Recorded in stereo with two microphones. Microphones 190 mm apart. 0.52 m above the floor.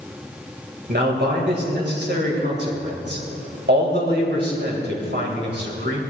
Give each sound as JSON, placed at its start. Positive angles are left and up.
{"t": 0.9, "sound": "a man speaking", "side_deg": -65, "distance_m": 2.5}